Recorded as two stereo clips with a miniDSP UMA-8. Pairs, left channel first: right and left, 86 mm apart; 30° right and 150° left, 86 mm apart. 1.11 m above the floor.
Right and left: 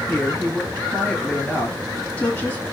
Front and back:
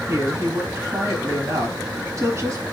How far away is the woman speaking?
About 2.5 m.